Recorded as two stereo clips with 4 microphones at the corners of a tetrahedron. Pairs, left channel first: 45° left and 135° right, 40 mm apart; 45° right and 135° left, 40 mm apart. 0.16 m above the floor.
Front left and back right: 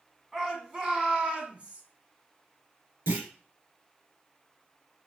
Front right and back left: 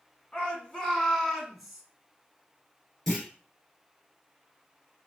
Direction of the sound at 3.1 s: 120° right.